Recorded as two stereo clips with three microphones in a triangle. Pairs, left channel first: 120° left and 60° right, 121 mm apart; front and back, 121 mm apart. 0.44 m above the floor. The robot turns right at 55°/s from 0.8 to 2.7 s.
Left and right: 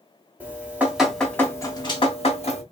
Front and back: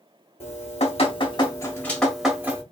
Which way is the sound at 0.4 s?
15° left.